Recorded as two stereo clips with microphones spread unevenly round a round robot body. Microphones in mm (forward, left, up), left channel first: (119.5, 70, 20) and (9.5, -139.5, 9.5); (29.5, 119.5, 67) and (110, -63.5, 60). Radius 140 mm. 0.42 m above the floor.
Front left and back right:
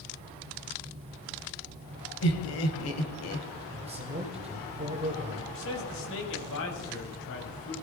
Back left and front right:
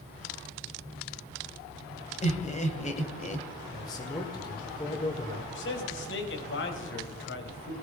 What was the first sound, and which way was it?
Laughter, 60° left.